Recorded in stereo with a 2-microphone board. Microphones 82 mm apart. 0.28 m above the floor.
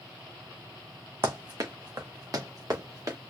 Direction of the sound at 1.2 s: 55° right (ahead or behind).